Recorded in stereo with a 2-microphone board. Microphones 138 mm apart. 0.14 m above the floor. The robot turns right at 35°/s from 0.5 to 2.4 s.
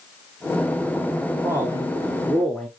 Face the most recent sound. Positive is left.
turn(degrees=170)